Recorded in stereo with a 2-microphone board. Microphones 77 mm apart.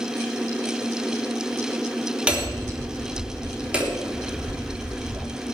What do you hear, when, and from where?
2.3 s hammering: 15° right (ahead or behind), 3 m